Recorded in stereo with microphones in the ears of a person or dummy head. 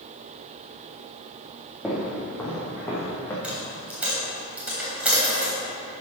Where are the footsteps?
5° left (ahead or behind), 3.5 m; by 3.3 s 20° left (ahead or behind), 4 m.